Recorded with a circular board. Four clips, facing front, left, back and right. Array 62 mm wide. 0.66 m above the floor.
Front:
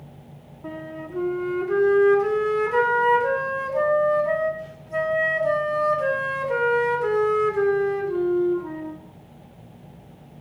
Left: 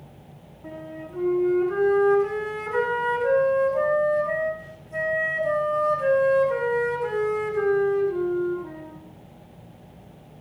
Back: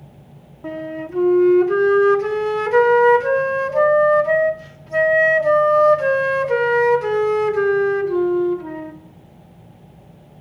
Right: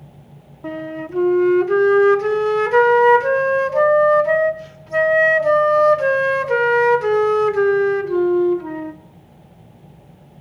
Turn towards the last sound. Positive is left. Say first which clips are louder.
# right 10 dB, back 7 dB
turn(degrees=-115)